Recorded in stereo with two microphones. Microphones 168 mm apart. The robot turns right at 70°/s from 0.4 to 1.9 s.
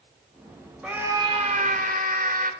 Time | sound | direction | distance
0.8 | a scream | 175° right | 2.5 m